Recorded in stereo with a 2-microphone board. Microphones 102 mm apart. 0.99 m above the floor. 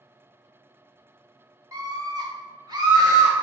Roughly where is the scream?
Right.